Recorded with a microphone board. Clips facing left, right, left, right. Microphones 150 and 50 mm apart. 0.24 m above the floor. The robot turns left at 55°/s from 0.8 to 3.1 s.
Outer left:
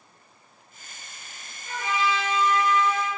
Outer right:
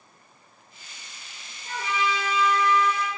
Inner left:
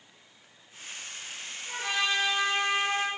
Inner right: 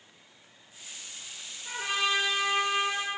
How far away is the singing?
I don't hear singing.